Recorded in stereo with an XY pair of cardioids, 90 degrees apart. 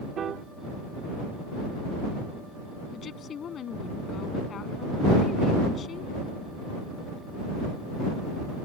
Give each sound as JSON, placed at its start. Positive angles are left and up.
{"t": 0.2, "sound": "a piano", "azimuth_deg": -65}
{"t": 2.9, "sound": "a woman speaking", "azimuth_deg": 65}